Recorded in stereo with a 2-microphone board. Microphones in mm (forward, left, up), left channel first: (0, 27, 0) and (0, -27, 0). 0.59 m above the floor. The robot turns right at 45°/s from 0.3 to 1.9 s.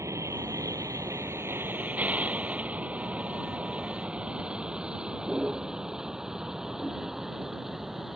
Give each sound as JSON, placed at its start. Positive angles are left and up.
{"t": 0.0, "sound": "a vehicle", "side_deg": -70}